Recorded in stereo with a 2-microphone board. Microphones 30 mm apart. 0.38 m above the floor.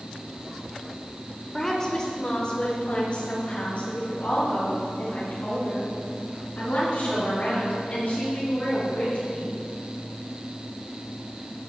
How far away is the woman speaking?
About 1.3 m.